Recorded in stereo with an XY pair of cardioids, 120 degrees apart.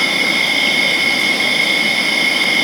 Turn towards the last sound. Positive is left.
turn(degrees=-10)